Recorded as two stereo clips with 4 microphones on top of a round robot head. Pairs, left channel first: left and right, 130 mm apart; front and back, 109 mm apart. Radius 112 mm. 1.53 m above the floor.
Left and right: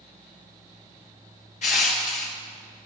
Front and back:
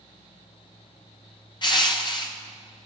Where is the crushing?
50° left, 1.2 m.